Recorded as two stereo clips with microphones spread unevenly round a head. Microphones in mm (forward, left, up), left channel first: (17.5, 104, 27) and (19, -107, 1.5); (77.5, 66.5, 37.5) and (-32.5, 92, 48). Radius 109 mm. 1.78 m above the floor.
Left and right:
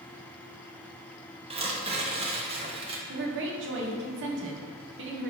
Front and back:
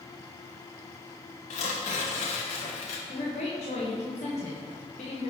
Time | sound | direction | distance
1.5 | tearing paper | 25° right | 1.4 m
3.1 | a woman speaking | 60° right | 2 m